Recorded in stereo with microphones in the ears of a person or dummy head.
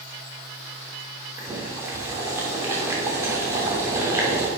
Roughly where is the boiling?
Centre.